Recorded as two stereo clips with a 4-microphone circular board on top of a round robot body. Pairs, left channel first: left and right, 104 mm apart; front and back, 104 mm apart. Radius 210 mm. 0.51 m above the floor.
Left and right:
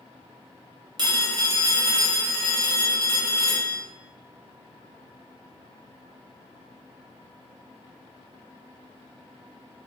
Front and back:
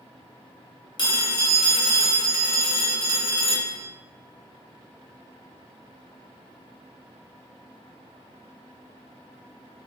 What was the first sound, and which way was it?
A phone ringing, 45° right.